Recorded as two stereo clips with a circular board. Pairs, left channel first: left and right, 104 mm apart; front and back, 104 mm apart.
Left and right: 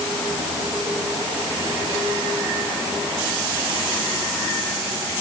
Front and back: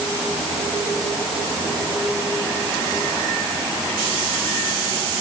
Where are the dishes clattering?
No dishes clattering in this recording.